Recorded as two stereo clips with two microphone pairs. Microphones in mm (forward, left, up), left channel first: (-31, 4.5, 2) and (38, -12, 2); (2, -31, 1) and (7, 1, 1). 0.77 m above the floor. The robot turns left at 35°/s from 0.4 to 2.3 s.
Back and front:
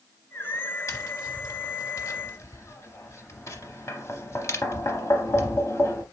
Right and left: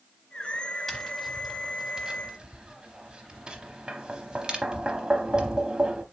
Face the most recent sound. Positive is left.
turn(degrees=140)